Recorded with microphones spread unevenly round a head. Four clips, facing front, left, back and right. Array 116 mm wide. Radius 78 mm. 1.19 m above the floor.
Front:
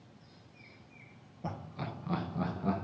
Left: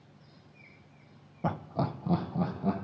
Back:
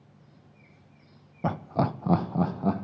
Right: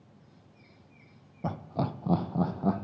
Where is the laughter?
135° left, 1.0 m; by 2.8 s 125° right, 1.7 m.